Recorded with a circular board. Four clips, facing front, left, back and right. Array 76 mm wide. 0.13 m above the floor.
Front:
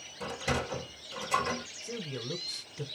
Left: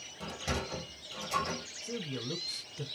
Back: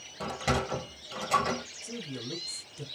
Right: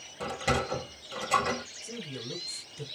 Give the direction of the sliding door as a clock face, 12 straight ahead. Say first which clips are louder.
Right 8 dB, back 3 dB; 5 o'clock.